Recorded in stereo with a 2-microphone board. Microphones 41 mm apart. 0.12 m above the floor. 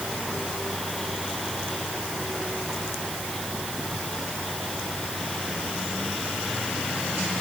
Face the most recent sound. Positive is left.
No sound to turn to.